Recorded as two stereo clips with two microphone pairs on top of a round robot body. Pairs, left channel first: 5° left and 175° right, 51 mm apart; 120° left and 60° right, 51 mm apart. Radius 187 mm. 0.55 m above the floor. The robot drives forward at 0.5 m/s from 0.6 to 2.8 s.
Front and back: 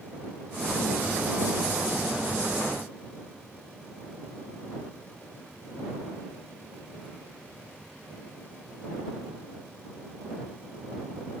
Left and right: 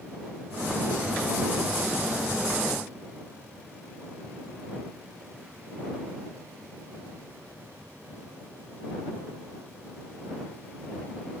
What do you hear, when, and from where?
Only background noise.